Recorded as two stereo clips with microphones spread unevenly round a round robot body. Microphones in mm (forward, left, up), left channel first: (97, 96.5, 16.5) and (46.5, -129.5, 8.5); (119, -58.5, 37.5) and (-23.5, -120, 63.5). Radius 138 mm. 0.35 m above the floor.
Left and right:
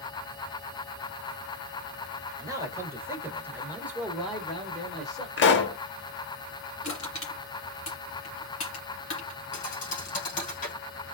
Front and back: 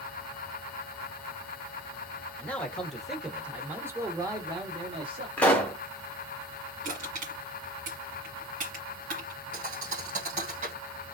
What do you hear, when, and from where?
2.4 s a man speaking: 40° right, 1.6 m; by 5.3 s 165° left, 1.5 m
5.4 s a pop: 90° left, 0.8 m
6.8 s crushing: 145° left, 1.8 m
9.5 s a thud: 140° left, 1.5 m